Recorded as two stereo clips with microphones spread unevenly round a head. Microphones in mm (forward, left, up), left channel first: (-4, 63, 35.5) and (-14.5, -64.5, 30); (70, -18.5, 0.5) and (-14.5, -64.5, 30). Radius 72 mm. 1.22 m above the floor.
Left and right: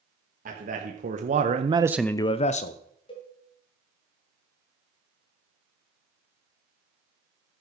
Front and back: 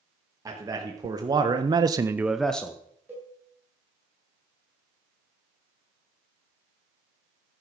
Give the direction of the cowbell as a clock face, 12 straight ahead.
8 o'clock.